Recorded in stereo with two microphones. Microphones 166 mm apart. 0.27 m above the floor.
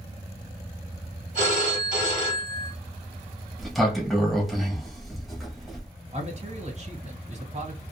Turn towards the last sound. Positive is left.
turn(degrees=-45)  # may be behind; listen again after turning